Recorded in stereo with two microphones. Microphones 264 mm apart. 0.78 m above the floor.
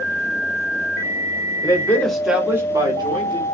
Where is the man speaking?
15° left (ahead or behind), 0.9 m; by 3.5 s 20° right (ahead or behind), 1.5 m.